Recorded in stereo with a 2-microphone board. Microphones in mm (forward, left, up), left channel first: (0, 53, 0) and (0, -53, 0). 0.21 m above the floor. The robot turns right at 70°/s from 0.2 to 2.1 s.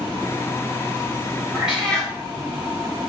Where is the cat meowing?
15° right, 3 m; by 2.1 s 25° left, 3 m.